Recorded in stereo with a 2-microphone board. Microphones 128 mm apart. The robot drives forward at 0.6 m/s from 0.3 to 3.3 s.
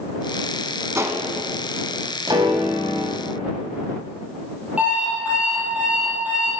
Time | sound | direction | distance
0.9 | a gunshot | 20° right (ahead or behind) | 0.9 m
2.3 | a piano | 30° right (ahead or behind) | 2.5 m
4.8 | an alarm clock | 10° right (ahead or behind) | 3.5 m